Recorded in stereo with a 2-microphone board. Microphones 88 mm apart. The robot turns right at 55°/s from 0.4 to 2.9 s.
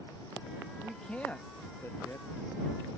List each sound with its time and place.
0.8 s a man speaking: centre (ahead or behind); by 2.3 s 35° left (ahead or behind)